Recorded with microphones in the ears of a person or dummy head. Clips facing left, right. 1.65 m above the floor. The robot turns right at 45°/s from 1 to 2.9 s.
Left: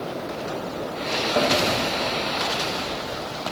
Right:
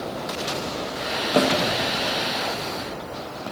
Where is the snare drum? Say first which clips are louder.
Right 3 dB; 45° right (ahead or behind), 0.6 m; by 1.5 s 40° right (ahead or behind), 0.6 m.